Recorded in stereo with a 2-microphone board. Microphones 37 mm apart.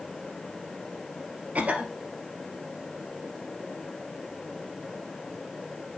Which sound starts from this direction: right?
A cough, at 1.6 s.